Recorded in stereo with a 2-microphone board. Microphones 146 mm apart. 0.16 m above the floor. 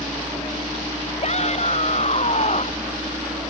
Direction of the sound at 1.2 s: 50° left (ahead or behind).